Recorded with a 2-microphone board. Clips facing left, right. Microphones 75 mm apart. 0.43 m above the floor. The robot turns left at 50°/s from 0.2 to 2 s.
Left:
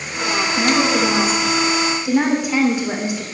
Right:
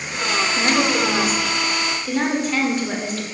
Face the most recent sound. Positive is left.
turn(degrees=15)  # may be behind; listen again after turning